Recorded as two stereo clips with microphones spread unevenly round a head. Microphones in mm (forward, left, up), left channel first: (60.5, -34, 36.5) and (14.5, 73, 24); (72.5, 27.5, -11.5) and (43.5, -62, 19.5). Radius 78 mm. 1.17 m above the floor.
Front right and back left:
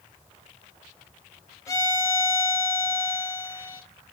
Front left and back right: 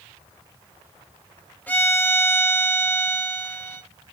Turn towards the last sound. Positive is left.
turn(degrees=-10)